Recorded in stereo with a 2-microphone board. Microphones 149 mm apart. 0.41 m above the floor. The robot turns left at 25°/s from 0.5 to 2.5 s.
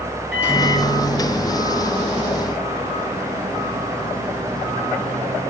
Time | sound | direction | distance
0.3 | a microwave | 10° right | 4.5 m